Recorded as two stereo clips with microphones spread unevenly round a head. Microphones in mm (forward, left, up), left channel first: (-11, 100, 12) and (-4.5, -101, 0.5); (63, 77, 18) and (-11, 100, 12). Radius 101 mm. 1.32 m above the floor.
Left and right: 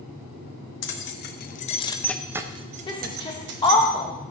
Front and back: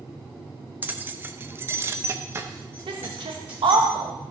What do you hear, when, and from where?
0.8 s keys jangling: 95° left, 0.9 m; by 3.9 s 115° right, 1.1 m
2.9 s a woman speaking: 160° left, 1.2 m